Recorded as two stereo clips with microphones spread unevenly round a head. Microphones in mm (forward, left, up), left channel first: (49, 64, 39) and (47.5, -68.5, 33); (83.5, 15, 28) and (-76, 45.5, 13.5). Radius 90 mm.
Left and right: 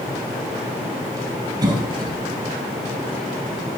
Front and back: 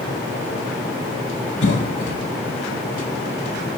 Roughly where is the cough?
Ahead right.